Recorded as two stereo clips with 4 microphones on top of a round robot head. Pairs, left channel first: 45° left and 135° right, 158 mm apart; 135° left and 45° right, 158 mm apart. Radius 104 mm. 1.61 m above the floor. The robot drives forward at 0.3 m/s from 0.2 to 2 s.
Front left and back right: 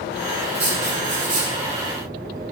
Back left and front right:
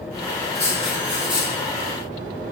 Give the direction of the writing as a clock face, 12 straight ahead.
4 o'clock.